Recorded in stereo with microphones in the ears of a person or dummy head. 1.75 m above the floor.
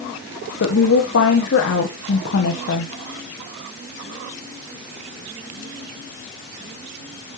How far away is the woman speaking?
About 1.5 m.